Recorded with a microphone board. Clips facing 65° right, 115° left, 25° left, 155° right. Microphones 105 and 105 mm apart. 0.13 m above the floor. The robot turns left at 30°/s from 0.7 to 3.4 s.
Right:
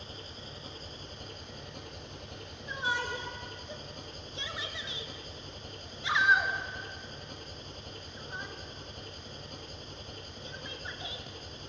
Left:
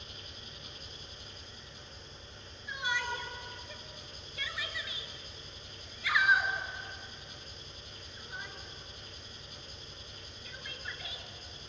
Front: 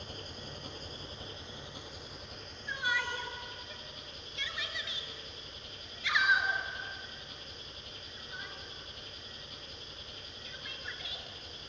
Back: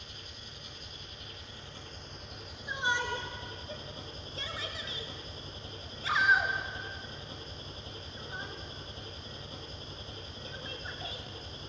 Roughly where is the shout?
Right.